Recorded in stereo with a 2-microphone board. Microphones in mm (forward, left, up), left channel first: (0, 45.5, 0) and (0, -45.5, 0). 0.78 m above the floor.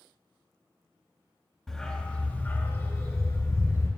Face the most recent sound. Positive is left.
turn(degrees=45)  # may be behind; listen again after turning